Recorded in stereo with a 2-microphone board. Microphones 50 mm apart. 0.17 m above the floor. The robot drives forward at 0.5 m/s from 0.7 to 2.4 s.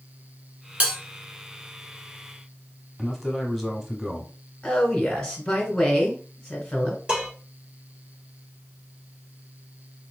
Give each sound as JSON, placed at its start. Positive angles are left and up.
{"t": 0.8, "sound": "a bell", "side_deg": -30, "distance_m": 1.4}
{"t": 3.0, "sound": "a man speaking", "side_deg": 0, "distance_m": 1.0}
{"t": 4.6, "sound": "a woman speaking", "side_deg": 15, "distance_m": 1.7}
{"t": 7.1, "sound": "dishes clattering", "side_deg": -20, "distance_m": 2.0}